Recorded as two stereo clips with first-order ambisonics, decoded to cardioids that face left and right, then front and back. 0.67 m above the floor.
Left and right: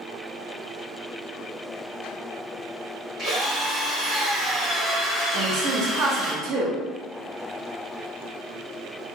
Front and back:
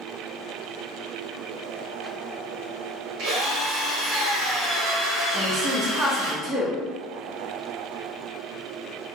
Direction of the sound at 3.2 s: 165° right.